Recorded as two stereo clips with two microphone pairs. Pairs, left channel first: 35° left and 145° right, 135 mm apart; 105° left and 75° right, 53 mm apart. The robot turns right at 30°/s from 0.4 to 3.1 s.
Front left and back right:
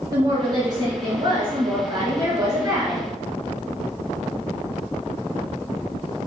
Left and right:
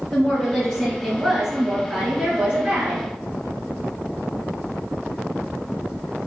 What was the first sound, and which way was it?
A woman speaking, 175° left.